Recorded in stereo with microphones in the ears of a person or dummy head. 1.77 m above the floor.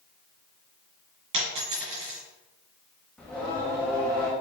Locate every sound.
1.3 s a dropped coin: 30° right (ahead or behind), 1.9 m
3.2 s singing: 5° left (ahead or behind), 0.6 m